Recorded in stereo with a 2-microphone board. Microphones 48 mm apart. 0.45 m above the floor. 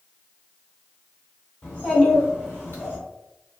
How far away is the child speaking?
About 1.9 m.